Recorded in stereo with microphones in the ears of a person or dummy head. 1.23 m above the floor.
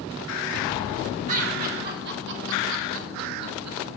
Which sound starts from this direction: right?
Laughter, at 1.3 s.